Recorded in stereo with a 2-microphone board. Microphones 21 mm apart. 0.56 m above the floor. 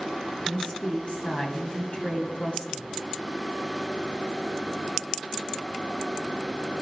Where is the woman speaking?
45° left (ahead or behind), 2 m.